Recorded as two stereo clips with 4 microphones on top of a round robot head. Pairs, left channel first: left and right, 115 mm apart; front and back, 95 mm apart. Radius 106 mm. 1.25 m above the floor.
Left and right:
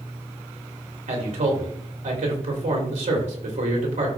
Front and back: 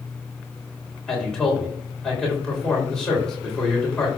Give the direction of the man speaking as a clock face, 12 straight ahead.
3 o'clock.